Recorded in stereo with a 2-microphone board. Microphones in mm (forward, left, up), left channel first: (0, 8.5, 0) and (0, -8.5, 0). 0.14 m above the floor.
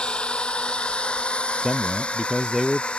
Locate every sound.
0.0 s a drone: 65° left (ahead or behind); by 3.0 s 80° left
1.6 s a man speaking: 10° right (ahead or behind)